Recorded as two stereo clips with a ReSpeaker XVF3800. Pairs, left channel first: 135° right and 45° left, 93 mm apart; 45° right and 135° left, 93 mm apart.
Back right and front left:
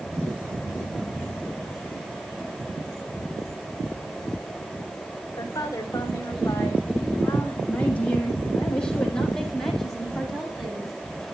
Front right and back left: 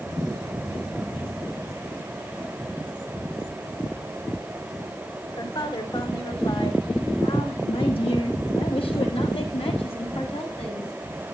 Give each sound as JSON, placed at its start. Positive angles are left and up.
{"t": 5.4, "sound": "a woman speaking", "azimuth_deg": -80, "distance_m": 5.5}